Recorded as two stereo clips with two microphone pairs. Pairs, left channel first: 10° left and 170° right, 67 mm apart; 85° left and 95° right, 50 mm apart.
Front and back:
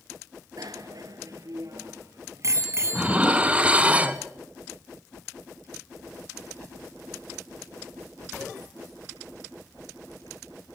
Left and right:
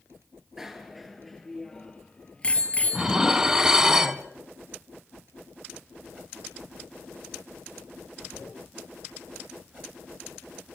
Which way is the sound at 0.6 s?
175° right.